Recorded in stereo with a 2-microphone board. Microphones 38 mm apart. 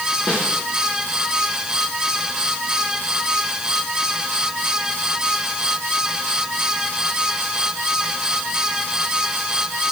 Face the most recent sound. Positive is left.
turn(degrees=40)  # may be behind; listen again after turning